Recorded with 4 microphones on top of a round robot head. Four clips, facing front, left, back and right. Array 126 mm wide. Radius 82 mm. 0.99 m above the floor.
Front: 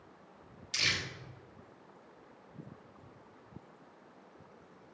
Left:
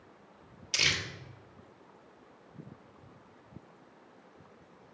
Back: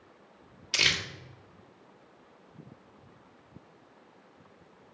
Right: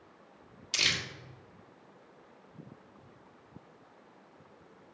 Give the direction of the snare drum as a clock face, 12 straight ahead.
No snare drum in this recording.